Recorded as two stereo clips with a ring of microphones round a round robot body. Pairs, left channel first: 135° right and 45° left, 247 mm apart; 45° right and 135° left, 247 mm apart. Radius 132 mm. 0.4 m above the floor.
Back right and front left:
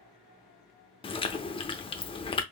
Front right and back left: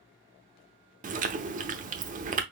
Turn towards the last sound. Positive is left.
turn(degrees=170)